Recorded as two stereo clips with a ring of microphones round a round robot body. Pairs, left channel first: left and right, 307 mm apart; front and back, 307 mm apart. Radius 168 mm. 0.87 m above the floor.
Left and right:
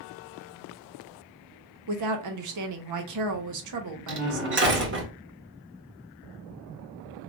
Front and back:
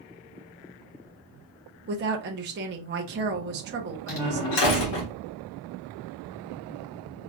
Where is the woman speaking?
120° right, 0.7 m.